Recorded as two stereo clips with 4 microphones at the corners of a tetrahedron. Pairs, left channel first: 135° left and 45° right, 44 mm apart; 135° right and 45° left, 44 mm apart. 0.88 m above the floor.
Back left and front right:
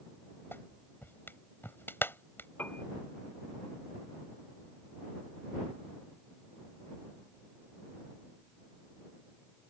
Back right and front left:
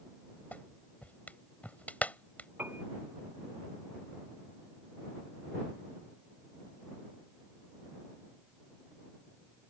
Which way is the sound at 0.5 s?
175° left.